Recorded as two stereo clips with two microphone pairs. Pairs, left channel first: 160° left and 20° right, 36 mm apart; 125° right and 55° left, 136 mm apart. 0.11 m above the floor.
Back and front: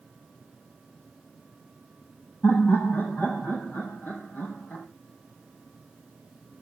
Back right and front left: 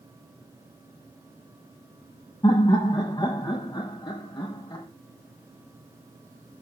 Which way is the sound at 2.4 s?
175° left.